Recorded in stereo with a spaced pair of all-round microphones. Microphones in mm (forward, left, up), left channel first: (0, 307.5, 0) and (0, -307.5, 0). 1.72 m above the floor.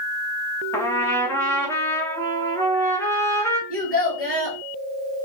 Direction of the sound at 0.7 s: 5° left (ahead or behind).